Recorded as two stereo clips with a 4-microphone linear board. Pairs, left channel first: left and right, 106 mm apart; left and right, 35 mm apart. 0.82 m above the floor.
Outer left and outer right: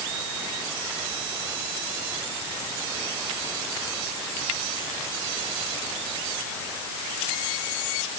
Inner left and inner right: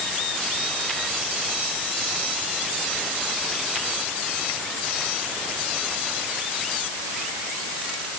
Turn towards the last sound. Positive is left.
No sound to turn to.